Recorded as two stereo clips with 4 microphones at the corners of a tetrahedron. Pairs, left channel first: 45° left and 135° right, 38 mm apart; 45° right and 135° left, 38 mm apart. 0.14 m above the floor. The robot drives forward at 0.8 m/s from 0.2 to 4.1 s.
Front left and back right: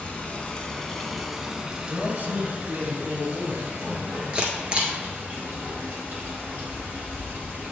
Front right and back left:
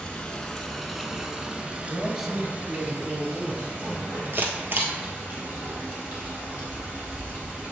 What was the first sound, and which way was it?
Running water, 10° left.